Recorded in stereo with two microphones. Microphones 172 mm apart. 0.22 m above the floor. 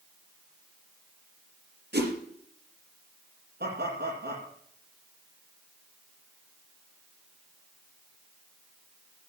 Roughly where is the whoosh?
Right.